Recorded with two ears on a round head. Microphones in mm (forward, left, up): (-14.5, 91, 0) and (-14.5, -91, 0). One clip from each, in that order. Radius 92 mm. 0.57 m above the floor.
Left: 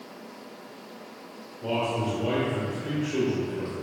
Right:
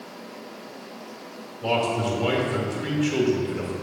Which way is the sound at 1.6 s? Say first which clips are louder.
Right 4 dB; 55° right (ahead or behind).